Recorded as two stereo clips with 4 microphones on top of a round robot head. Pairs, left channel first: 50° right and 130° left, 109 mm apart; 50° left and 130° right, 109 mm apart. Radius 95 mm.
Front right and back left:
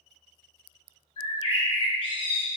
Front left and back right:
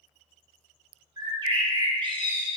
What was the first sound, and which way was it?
A bird, 85° right.